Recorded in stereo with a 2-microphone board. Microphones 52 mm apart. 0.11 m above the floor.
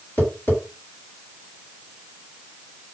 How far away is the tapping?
About 2.5 m.